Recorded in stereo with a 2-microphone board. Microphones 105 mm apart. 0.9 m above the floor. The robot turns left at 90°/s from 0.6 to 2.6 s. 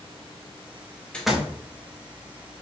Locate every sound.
1.1 s a door slam: 10° left, 0.7 m; by 1.6 s 30° right, 0.7 m